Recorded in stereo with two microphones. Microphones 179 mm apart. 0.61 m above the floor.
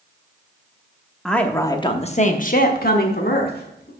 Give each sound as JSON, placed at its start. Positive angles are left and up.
{"t": 1.2, "sound": "a woman speaking", "side_deg": 0, "distance_m": 0.9}